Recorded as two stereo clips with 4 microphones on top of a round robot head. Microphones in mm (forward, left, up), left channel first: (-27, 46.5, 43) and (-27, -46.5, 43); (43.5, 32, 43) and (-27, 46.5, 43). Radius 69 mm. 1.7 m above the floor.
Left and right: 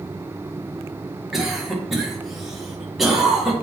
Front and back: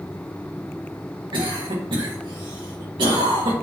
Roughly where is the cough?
Behind.